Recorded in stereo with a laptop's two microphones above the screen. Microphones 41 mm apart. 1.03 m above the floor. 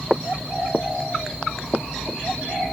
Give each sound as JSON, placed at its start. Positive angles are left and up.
{"t": 0.1, "sound": "footsteps", "side_deg": -10}